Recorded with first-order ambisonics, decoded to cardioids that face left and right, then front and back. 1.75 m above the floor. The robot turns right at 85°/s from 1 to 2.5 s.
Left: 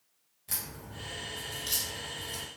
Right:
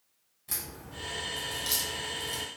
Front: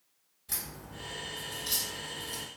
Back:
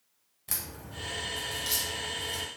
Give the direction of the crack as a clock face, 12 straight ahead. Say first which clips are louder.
Even, back 2 dB; 6 o'clock.